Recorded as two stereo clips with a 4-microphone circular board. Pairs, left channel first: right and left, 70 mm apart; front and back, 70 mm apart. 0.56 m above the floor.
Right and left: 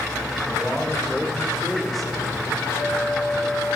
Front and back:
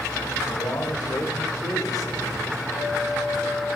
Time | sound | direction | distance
0.5 | a man speaking | straight ahead | 1.7 m
2.7 | a clink | 50° right | 3.5 m